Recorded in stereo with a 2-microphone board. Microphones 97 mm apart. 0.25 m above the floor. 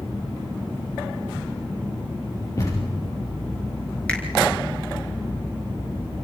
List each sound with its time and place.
2.6 s a thud: 35° left (ahead or behind), 5.5 m
4.1 s a finger snap: 10° left (ahead or behind), 3.5 m